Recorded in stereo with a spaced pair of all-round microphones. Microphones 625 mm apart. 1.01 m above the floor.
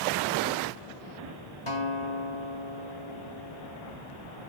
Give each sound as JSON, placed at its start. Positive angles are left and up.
{"t": 1.7, "sound": "a guitar", "side_deg": 50, "distance_m": 3.5}